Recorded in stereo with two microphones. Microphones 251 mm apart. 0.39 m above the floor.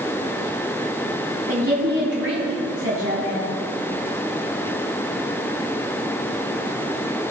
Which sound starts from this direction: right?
A woman speaking, at 1.5 s.